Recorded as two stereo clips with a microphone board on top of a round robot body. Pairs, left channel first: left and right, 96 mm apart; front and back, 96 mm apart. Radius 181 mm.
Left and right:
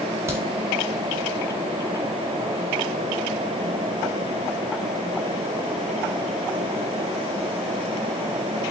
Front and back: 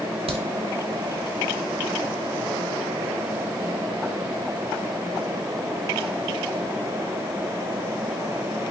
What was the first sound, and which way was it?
A crack, 155° right.